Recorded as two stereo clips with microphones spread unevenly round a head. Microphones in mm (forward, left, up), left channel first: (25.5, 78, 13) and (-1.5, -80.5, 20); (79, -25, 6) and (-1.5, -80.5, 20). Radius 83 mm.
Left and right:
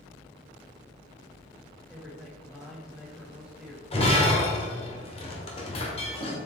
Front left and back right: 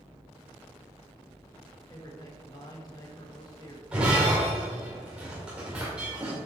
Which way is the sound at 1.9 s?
15° right.